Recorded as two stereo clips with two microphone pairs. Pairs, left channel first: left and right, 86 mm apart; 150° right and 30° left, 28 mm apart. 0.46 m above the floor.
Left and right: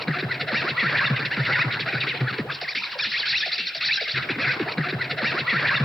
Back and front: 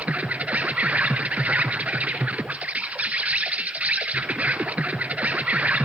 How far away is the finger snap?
I don't hear a finger snap.